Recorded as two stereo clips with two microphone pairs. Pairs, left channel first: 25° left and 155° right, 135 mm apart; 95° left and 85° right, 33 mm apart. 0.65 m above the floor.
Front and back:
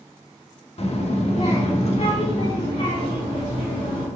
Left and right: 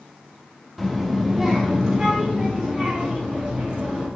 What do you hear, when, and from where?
0.8 s a child speaking: 10° left, 0.8 m; by 4.1 s 20° right, 2.5 m